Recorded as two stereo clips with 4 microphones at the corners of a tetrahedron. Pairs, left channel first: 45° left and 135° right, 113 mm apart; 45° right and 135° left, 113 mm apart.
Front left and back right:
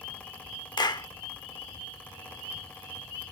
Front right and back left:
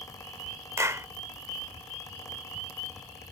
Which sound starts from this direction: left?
A clap, at 0.8 s.